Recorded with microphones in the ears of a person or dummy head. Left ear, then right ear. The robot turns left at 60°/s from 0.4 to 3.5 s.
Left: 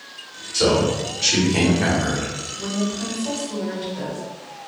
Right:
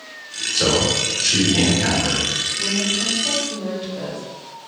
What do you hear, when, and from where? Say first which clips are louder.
0.5 s a man speaking: even; 160° right, 1.2 m; by 2.3 s 90° left, 1.2 m
2.6 s a woman speaking: right 6 dB; 155° right, 1.3 m; by 4.2 s 150° left, 1.3 m